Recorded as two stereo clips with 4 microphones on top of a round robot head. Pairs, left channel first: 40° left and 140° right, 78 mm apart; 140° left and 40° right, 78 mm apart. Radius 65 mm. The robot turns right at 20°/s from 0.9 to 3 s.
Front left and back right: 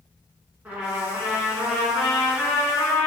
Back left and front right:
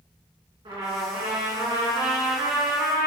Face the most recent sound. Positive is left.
turn(degrees=-25)